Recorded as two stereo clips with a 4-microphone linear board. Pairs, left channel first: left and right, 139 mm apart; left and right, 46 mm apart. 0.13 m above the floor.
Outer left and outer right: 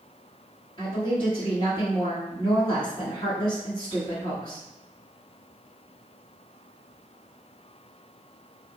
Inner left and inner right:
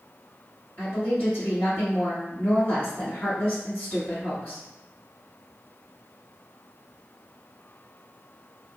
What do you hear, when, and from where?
0.8 s a woman speaking: 35° left (ahead or behind), 1.7 m